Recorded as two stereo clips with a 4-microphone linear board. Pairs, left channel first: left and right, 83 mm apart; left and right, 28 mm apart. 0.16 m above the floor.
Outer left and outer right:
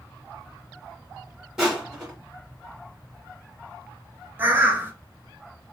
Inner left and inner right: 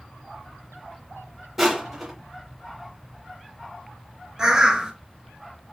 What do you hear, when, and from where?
1.6 s crushing: 5° right (ahead or behind), 1.6 m
4.4 s a bird: 25° right (ahead or behind), 0.9 m